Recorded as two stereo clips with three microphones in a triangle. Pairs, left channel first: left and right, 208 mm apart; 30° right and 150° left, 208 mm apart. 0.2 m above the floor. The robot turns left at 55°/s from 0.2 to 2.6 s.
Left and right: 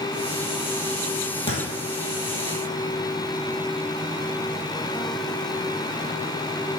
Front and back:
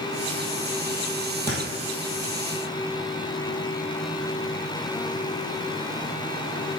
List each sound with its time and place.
1.5 s a thud: 120° left, 2 m; by 1.6 s 110° left, 2 m